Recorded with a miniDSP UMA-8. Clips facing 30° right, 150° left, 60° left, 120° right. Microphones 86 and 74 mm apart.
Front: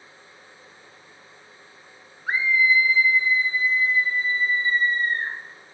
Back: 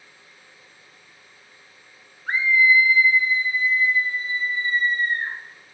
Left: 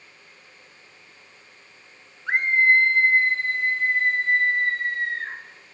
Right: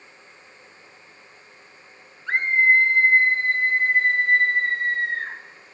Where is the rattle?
I don't hear a rattle.